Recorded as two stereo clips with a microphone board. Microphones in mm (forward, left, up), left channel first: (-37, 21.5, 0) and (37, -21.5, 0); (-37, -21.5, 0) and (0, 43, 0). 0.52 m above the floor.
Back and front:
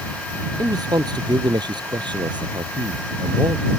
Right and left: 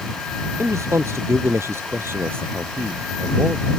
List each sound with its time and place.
0.6 s a man speaking: 10° left; by 3.7 s 5° right